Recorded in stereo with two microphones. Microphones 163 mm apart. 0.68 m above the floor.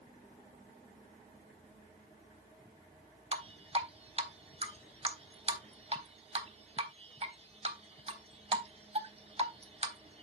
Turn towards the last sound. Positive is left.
turn(degrees=-40)  # may be behind; listen again after turning